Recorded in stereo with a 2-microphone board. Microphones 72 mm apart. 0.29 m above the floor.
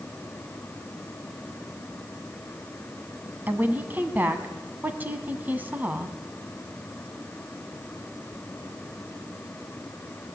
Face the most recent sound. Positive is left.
turn(degrees=-25)  # may be behind; listen again after turning